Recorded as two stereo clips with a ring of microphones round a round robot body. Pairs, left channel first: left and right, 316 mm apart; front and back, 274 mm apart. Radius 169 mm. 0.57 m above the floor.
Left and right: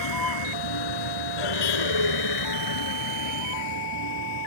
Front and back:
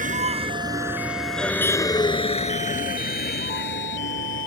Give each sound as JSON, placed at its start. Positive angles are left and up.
{"t": 0.0, "sound": "a vehicle", "azimuth_deg": 120}